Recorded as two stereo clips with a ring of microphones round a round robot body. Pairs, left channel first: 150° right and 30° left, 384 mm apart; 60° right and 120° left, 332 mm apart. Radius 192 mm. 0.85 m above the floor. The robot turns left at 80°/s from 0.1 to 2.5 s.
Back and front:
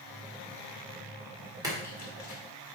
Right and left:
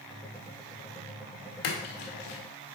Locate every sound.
1.6 s a splash: 50° right, 1.8 m; by 2.4 s 110° right, 1.8 m